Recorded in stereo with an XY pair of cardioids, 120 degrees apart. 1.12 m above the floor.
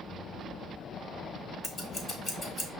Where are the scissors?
30° left, 1.9 m.